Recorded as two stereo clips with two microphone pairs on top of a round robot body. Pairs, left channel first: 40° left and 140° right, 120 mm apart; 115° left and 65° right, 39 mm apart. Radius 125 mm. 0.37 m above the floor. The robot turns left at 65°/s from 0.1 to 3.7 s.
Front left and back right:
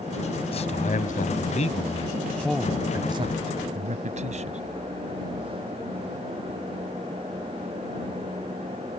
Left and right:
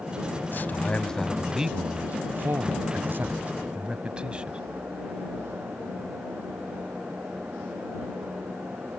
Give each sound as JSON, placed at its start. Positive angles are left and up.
{"t": 0.5, "sound": "a man speaking", "azimuth_deg": 75}